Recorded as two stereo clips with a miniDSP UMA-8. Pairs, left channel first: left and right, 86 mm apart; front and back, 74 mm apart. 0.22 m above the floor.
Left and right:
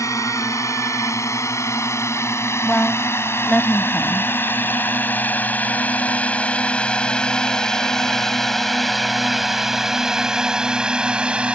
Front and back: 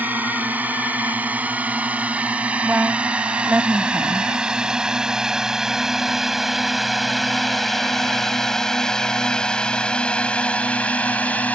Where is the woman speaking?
145° left.